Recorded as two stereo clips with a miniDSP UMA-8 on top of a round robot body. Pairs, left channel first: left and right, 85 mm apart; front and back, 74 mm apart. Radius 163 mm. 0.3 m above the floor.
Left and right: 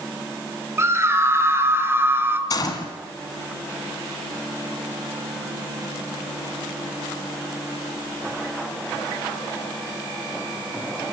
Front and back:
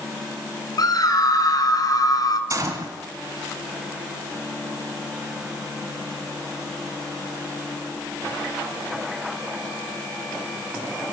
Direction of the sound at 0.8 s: 30° right.